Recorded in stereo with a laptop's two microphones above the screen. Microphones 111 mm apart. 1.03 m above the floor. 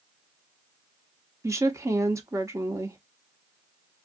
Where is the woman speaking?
25° right (ahead or behind), 0.7 m.